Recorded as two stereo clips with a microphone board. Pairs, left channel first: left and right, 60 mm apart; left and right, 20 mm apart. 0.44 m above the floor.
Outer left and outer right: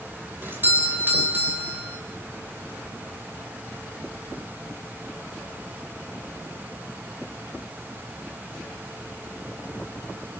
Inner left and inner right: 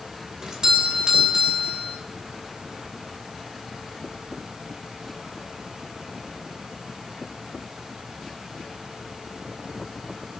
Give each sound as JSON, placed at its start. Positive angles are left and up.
{"t": 0.4, "sound": "a doorbell", "side_deg": -35, "distance_m": 3.0}